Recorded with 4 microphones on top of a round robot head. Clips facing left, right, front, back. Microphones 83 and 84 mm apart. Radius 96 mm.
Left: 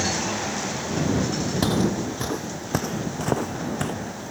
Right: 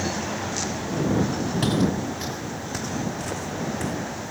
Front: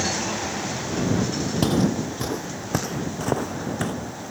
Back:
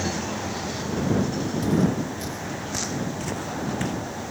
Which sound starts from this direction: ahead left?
Footsteps, at 1.6 s.